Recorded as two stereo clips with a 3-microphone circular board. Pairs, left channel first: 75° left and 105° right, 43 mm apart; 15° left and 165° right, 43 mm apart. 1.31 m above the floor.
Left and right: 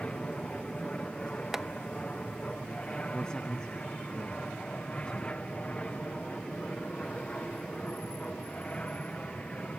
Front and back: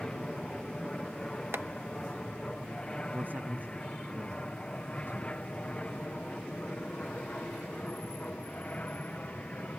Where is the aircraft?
65° left; by 9.8 s 35° left.